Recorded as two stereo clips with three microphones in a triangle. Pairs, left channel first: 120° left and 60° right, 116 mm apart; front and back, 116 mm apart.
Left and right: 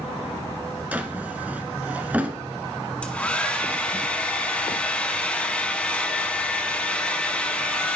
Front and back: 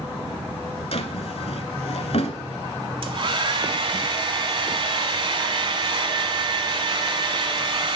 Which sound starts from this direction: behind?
A hair dryer, at 3.0 s.